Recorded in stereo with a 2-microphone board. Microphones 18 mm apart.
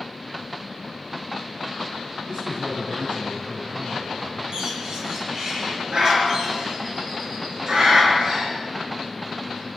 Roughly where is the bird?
Right.